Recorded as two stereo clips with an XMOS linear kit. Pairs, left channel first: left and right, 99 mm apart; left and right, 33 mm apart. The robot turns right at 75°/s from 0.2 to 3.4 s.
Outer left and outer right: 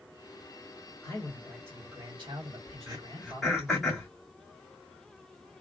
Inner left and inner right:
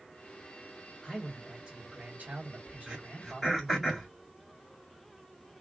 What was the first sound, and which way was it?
A man speaking, 145° left.